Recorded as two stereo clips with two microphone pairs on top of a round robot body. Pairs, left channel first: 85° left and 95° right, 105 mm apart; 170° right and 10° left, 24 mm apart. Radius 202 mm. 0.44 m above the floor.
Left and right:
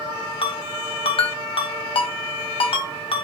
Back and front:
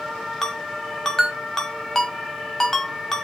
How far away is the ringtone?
About 1.2 m.